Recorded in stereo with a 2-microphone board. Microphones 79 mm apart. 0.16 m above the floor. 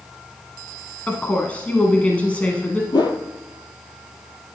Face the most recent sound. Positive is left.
turn(degrees=75)  # may be behind; listen again after turning